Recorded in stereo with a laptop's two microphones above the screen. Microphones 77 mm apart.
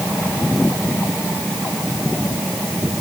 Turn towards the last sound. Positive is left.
No sound to turn to.